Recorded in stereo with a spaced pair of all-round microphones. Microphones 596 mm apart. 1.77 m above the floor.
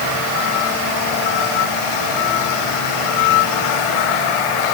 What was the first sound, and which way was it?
Only background noise.